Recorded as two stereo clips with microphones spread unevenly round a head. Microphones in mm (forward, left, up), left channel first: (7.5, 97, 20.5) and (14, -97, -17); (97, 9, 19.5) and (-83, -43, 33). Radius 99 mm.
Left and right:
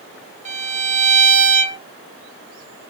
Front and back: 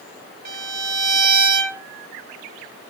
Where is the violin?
145° right, 2.0 m.